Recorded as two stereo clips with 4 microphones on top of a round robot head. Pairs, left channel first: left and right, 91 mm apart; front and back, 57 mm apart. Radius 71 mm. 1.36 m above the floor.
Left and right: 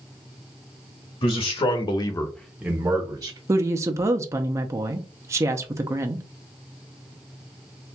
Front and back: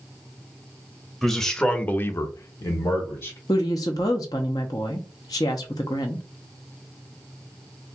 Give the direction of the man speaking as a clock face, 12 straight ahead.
9 o'clock.